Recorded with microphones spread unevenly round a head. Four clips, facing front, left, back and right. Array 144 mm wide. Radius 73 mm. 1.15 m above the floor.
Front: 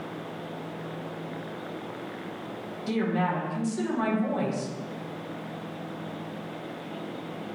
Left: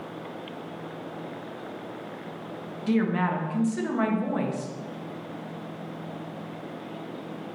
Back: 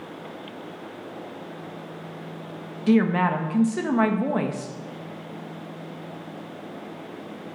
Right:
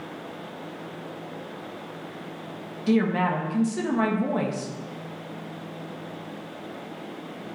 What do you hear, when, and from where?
2.9 s a woman speaking: 165° right, 1.3 m